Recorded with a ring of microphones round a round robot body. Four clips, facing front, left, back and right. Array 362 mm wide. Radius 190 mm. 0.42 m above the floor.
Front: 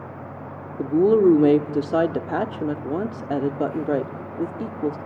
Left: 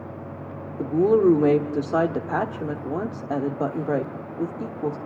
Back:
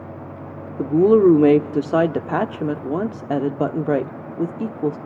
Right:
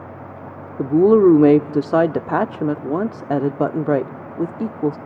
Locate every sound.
0.8 s a woman speaking: 105° right, 0.9 m